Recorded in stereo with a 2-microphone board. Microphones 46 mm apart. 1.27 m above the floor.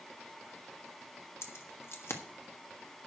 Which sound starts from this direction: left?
Keys jangling, at 1.4 s.